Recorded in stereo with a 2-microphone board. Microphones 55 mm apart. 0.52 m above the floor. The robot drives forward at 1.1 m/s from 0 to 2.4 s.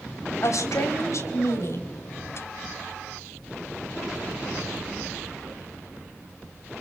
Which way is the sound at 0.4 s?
70° left (ahead or behind).